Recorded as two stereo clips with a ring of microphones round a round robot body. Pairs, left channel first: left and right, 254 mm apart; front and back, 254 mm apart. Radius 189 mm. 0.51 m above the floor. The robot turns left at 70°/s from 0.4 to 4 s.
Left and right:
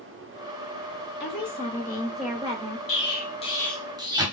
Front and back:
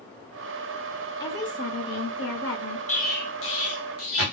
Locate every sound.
1.2 s a woman speaking: 70° left, 1.7 m; by 2.8 s 45° right, 1.7 m
2.9 s an explosion: 60° left, 1.4 m; by 4.2 s 15° right, 1.4 m